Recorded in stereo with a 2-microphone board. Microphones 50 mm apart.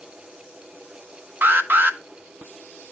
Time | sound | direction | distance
1.4 | an alarm | 45° right (ahead or behind) | 0.8 m